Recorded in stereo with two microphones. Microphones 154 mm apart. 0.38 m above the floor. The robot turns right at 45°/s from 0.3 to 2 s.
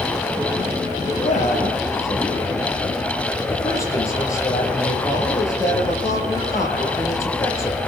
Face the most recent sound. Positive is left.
turn(degrees=160)